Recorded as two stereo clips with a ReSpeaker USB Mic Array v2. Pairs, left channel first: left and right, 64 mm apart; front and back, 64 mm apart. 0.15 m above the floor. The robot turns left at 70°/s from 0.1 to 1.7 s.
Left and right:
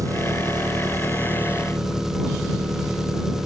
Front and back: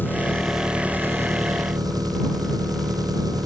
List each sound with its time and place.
0.0 s an engine running: 60° right; by 3.5 s 170° right